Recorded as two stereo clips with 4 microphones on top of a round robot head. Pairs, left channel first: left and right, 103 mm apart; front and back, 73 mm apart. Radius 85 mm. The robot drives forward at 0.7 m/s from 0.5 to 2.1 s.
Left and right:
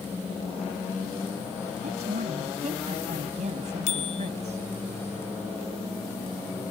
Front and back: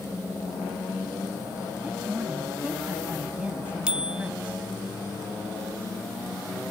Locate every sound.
1.8 s a woman speaking: 100° right
3.9 s a bicycle bell: 105° left